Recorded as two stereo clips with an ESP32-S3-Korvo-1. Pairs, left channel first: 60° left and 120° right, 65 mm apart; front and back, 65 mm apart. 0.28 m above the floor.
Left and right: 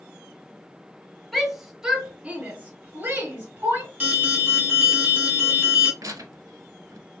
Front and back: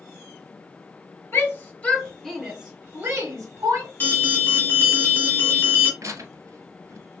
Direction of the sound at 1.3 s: 30° right.